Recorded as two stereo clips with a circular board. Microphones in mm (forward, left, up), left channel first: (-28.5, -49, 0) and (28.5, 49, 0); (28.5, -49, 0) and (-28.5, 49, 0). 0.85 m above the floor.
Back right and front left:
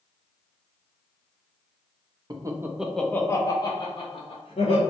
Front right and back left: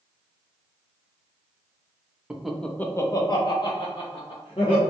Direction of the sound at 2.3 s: 45° left.